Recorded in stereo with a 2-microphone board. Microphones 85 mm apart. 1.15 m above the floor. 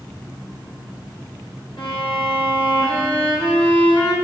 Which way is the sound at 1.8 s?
75° left (ahead or behind).